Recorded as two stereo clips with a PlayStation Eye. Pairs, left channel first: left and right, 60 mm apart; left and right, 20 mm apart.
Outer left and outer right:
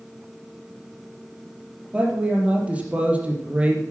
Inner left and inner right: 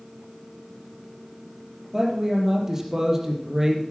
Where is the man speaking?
20° right (ahead or behind), 4 m.